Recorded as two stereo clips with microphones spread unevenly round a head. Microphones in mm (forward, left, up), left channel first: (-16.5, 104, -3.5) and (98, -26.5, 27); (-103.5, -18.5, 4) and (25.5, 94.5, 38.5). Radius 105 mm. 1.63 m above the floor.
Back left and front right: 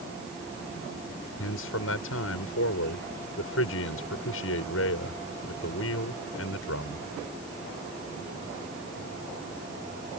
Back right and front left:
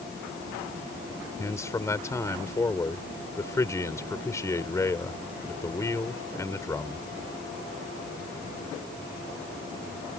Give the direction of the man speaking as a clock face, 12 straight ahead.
7 o'clock.